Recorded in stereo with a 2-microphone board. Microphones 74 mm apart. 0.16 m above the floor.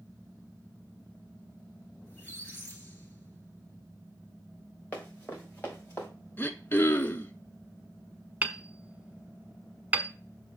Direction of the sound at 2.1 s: 30° left (ahead or behind).